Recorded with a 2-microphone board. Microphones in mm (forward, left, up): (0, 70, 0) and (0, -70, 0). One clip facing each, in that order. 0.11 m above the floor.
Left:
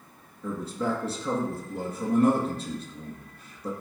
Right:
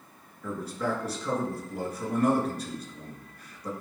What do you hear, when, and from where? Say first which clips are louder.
0.4 s a man speaking: left 2 dB; 25° left (ahead or behind), 1.8 m